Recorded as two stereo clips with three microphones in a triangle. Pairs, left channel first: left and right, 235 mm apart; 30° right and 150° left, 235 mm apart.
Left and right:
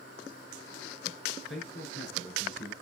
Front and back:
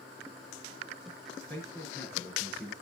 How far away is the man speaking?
About 5 m.